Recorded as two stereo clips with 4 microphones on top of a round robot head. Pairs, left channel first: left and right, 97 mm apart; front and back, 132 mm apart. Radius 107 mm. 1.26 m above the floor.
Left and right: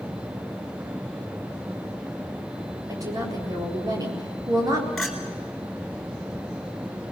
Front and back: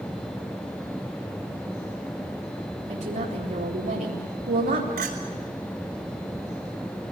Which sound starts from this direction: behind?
A clink, at 5.0 s.